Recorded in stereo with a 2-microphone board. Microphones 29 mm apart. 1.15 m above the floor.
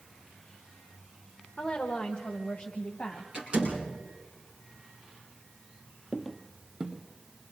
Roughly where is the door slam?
Right.